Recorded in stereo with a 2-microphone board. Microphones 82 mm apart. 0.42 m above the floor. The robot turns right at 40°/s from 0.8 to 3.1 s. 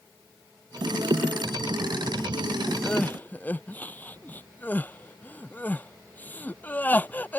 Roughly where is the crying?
Centre.